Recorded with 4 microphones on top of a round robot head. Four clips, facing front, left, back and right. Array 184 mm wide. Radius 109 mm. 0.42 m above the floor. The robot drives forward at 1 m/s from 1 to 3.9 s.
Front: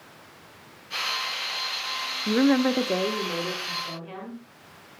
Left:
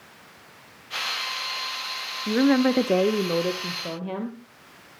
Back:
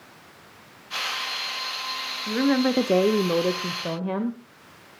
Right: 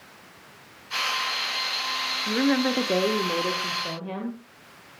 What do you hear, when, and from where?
2.3 s a woman speaking: 35° left, 0.8 m; by 4.4 s 170° left, 1.5 m